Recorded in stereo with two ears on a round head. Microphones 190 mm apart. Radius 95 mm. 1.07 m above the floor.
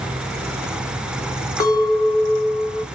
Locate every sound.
1.6 s a clink: 15° left (ahead or behind), 0.8 m